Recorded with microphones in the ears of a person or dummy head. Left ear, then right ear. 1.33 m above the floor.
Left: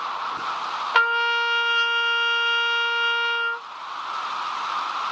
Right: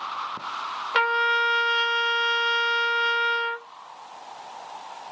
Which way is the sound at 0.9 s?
5° left (ahead or behind).